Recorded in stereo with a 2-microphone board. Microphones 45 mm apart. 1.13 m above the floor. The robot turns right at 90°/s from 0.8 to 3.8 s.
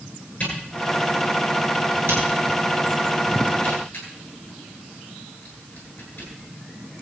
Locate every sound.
0.4 s a camera shutter: 25° left (ahead or behind), 10 m; by 6.3 s 65° left (ahead or behind), 10 m